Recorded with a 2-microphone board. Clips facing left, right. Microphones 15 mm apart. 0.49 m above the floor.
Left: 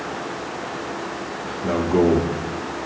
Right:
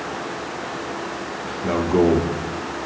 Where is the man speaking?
20° right (ahead or behind), 0.7 m.